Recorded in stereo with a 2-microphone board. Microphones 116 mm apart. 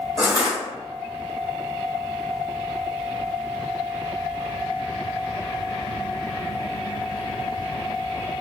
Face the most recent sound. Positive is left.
turn(degrees=40)  # may be behind; listen again after turning